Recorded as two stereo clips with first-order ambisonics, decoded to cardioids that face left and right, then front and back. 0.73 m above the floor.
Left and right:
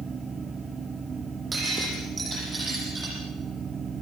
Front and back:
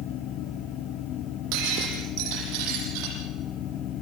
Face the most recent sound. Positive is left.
turn(degrees=-165)